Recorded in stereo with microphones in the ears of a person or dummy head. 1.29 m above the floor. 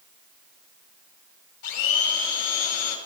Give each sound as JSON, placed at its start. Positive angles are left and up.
{"t": 1.6, "sound": "a blender", "side_deg": 65, "distance_m": 3.0}